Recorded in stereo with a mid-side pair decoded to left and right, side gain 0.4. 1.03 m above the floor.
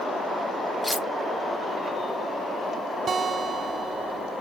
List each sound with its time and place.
0.8 s cutlery clinking: 15° left
3.1 s a guitar: 50° right